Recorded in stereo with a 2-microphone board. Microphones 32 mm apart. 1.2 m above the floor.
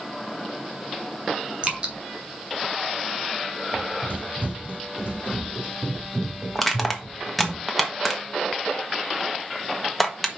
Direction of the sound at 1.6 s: 35° right (ahead or behind).